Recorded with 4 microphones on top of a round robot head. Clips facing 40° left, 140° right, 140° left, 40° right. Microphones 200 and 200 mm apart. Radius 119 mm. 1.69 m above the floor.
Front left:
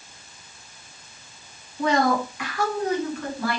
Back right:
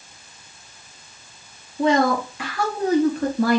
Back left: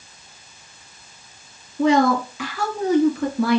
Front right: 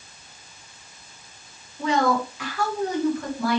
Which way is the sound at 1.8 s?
155° left.